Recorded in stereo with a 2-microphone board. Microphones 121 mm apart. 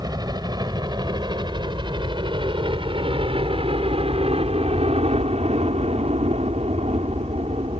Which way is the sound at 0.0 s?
35° right (ahead or behind).